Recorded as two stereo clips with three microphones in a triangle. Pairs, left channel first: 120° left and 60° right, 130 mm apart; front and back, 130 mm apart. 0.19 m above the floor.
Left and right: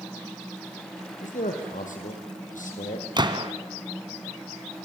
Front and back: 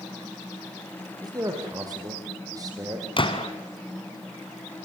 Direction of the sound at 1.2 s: 120° left.